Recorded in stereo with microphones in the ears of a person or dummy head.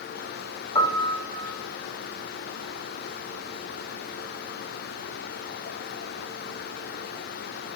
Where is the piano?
20° left (ahead or behind), 1.6 m.